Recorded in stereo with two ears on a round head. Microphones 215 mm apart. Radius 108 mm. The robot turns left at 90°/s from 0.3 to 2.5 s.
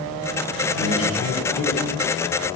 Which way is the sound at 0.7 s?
80° left.